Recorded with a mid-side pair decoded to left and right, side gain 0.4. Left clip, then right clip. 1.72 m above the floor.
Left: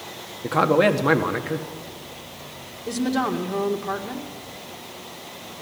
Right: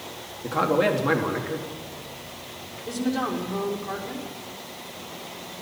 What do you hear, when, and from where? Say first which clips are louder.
0.4 s a man speaking: left 4 dB; 40° left, 1.3 m
2.9 s a woman speaking: left 3 dB; 50° left, 2 m